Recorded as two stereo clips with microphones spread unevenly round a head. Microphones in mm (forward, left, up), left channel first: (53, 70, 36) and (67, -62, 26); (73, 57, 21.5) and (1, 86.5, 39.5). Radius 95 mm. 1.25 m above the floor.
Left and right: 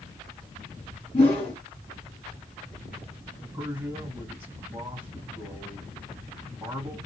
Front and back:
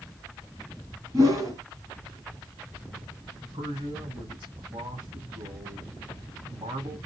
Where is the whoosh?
145° left, 2 m.